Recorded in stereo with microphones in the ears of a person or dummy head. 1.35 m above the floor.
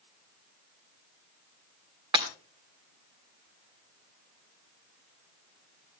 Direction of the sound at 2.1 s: 30° right (ahead or behind).